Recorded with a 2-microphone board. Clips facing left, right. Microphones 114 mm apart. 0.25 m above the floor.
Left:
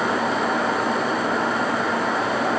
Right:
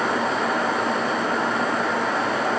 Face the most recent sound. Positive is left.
No sound to turn to.